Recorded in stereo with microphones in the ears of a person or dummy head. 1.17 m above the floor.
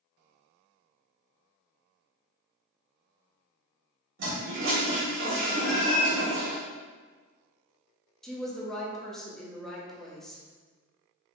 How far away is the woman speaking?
About 0.7 m.